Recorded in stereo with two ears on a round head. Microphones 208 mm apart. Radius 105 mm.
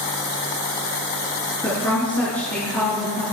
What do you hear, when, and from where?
1.6 s a woman speaking: 10° left (ahead or behind), 7 m